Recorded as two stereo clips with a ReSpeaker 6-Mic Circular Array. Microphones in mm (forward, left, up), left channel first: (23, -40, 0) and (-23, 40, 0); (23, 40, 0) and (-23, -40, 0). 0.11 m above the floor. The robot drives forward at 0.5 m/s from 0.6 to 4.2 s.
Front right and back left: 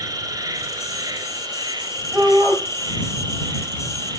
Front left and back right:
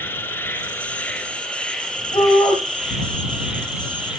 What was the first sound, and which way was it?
An insect, 115° left.